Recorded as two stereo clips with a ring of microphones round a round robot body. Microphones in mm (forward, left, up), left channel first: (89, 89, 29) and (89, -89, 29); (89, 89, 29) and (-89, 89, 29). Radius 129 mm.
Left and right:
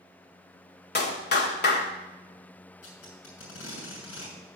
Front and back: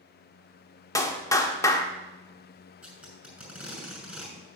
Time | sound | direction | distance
0.9 | a clap | 70° left | 1.6 m
2.8 | tape being pulled | 95° left | 6 m